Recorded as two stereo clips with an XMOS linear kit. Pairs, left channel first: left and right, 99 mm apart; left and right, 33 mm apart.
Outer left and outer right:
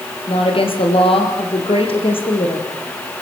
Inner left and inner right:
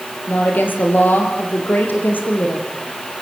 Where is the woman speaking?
70° left (ahead or behind), 4.5 m.